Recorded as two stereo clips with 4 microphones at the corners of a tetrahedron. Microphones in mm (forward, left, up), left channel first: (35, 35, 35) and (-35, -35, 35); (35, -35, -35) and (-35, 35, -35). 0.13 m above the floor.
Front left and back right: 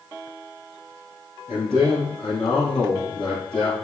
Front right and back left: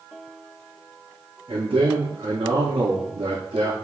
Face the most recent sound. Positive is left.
turn(degrees=130)